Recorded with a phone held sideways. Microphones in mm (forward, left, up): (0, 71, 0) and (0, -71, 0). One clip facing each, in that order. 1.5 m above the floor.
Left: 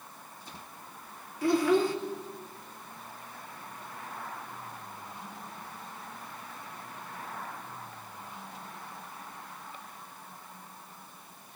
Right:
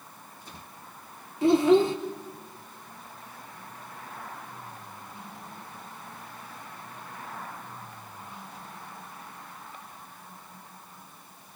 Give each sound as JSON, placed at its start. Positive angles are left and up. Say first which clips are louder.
{"t": 1.4, "sound": "a child speaking", "louder": "right 5 dB", "side_deg": -25, "distance_m": 0.6}